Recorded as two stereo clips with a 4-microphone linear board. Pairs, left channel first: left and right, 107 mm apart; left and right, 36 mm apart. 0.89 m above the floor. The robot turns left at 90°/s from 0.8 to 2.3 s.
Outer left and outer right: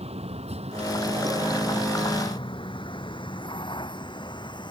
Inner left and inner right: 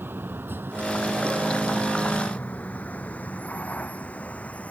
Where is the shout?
No shout in this recording.